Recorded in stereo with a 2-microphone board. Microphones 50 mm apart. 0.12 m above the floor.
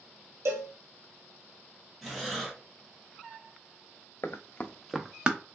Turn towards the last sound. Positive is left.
turn(degrees=-25)  # may be behind; listen again after turning